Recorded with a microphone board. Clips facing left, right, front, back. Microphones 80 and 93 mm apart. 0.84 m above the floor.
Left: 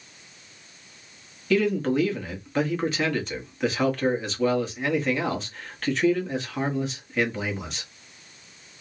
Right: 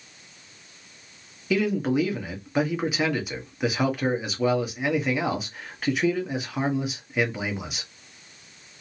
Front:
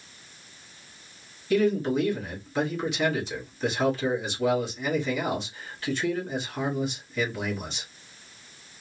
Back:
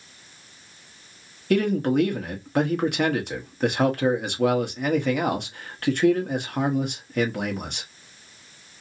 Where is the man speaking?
170° right, 1.0 m.